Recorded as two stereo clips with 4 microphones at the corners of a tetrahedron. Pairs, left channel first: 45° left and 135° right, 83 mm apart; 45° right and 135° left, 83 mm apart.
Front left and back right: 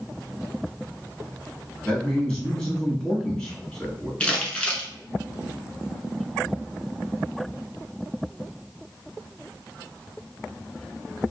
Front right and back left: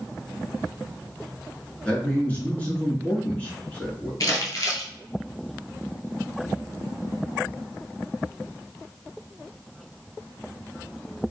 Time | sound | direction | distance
1.8 | a man speaking | 15° right | 1.0 m
4.2 | crumpling | 30° right | 0.7 m